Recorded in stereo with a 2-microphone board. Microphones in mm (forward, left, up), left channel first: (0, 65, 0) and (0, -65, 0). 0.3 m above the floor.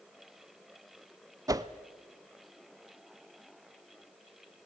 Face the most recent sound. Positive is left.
turn(degrees=-25)  # may be behind; listen again after turning